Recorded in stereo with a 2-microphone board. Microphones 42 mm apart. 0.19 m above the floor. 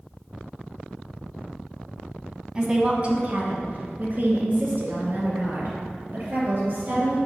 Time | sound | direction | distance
2.5 | a woman speaking | 20° right (ahead or behind) | 1.1 m